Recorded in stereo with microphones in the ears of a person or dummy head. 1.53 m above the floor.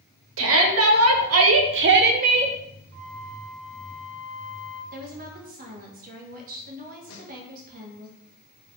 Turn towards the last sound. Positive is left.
turn(degrees=65)  # may be behind; listen again after turning